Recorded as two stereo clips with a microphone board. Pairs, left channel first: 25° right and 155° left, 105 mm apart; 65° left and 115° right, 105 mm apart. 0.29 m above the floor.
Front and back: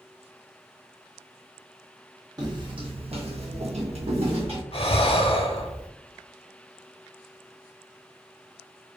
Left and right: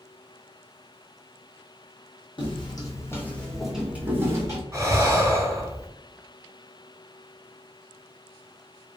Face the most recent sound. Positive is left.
turn(degrees=-50)